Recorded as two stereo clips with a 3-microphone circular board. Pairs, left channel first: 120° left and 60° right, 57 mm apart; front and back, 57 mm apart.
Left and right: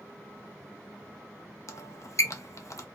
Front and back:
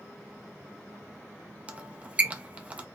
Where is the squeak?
120° left, 0.6 m.